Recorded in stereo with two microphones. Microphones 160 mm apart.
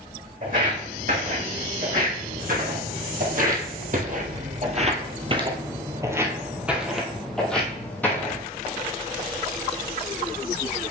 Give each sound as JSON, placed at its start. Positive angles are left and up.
{"t": 0.4, "sound": "footsteps", "side_deg": -60, "distance_m": 3.0}